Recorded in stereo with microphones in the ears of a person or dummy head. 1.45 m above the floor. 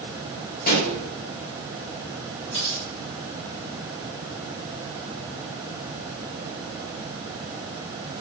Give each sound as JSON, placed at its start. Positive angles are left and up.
{"t": 0.7, "sound": "a pop", "side_deg": 45, "distance_m": 1.6}
{"t": 2.5, "sound": "cutlery clinking", "side_deg": 30, "distance_m": 3.0}